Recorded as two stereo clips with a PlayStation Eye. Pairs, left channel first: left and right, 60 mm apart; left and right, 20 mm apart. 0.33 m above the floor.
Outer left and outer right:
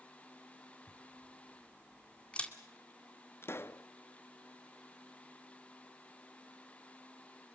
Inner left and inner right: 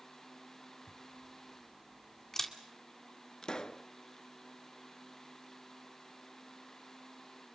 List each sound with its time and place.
0.9 s a camera shutter: 20° left (ahead or behind), 2 m
3.4 s a pop: 40° left (ahead or behind), 0.7 m